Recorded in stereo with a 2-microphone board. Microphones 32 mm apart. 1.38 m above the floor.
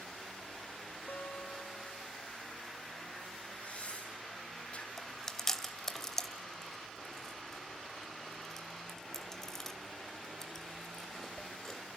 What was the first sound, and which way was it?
A guitar, 85° left.